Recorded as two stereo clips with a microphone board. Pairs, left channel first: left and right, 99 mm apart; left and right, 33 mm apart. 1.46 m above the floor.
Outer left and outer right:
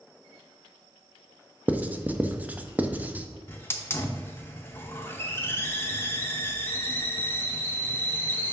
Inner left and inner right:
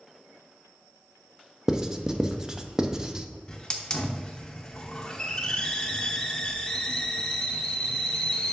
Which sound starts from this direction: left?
A hiss, at 3.5 s.